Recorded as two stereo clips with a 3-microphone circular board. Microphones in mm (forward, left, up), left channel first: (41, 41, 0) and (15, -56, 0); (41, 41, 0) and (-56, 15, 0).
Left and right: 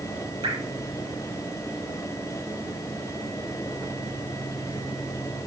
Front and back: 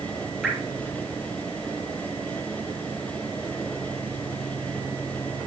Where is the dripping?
80° right, 3 m.